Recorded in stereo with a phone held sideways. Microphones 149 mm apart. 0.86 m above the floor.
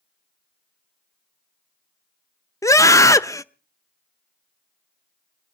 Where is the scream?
20° left (ahead or behind), 0.6 m.